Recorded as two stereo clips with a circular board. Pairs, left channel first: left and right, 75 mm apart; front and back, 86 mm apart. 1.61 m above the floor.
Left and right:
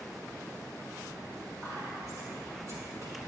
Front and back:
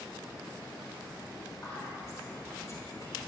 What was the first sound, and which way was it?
Whispering, 55° right.